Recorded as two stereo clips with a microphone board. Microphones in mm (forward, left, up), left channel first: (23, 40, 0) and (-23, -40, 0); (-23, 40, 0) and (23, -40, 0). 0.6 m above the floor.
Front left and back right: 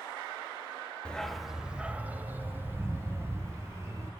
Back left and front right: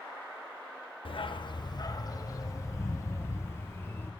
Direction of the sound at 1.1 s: 140° left.